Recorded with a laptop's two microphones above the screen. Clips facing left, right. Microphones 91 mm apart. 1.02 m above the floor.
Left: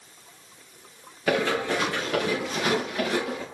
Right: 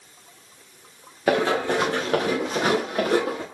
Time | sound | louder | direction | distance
1.3 | running footsteps | right 3 dB | 40° right (ahead or behind) | 4.5 m